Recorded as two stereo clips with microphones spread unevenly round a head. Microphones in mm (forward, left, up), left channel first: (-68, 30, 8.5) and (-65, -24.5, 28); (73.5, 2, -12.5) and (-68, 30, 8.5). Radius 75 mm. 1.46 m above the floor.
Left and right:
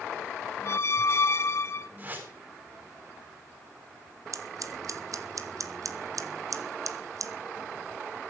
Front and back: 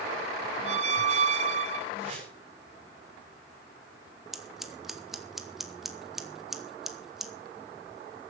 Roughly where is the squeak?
Behind left.